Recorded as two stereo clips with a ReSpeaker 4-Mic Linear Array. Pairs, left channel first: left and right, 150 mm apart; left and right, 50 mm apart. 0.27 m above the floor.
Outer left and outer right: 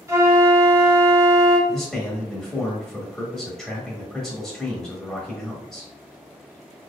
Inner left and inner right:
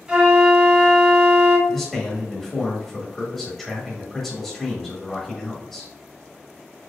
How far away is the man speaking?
About 1.2 m.